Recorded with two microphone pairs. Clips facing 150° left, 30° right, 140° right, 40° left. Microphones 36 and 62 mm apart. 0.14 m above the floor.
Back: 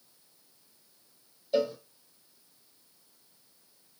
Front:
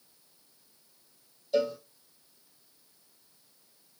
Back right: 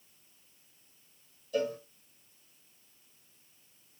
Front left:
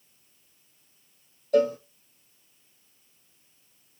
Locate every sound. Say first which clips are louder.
1.5 s a cowbell: even, front left 10 dB; 75° left, 0.7 m